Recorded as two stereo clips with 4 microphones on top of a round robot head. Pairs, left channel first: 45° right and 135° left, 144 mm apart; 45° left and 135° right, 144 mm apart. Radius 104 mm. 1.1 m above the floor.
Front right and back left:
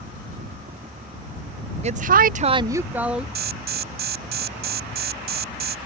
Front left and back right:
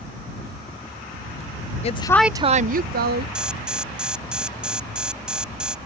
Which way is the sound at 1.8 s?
90° left.